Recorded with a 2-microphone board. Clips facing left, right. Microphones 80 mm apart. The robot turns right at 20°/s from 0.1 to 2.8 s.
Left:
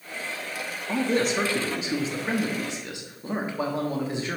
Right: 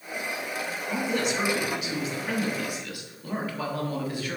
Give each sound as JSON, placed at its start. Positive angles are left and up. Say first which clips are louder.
{"t": 0.9, "sound": "a man speaking", "louder": "left 4 dB", "azimuth_deg": 95, "distance_m": 1.1}